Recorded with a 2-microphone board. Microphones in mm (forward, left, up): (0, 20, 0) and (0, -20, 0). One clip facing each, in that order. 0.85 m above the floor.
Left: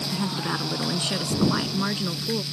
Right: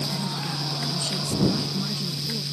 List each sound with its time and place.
0.1 s a woman speaking: 60° left (ahead or behind); by 2.4 s 45° left (ahead or behind)